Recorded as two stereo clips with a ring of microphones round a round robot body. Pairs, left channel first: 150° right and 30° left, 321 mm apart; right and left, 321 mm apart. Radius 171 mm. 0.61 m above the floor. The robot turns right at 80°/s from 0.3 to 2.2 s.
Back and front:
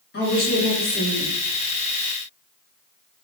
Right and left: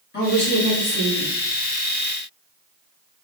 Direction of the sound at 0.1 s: 120° right.